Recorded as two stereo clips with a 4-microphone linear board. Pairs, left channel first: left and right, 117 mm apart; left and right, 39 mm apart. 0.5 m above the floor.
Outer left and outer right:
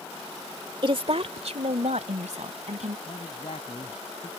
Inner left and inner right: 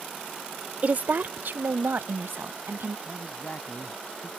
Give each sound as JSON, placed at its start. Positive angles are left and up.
{"t": 0.8, "sound": "a woman speaking", "side_deg": -40}
{"t": 3.0, "sound": "a man speaking", "side_deg": 60}